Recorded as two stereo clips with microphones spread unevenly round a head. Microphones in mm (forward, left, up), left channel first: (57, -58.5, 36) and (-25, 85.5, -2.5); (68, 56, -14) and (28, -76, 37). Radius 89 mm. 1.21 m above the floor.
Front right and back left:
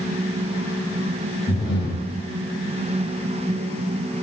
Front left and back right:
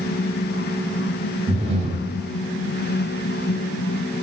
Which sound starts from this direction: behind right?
Breathing, at 1.5 s.